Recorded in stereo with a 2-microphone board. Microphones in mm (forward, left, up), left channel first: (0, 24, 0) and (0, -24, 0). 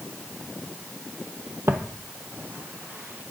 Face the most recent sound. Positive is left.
turn(degrees=-30)  # may be behind; listen again after turning